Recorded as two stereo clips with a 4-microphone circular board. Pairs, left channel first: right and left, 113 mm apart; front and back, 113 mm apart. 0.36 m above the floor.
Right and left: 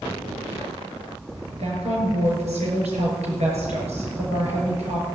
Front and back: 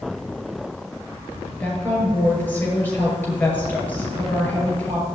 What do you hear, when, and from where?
1.6 s a woman speaking: 75° left, 7.5 m